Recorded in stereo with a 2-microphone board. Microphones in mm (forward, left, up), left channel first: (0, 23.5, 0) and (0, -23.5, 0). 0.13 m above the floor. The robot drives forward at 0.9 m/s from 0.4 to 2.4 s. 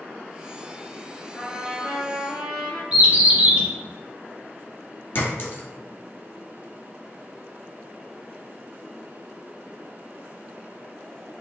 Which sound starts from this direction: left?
A clink, at 5.2 s.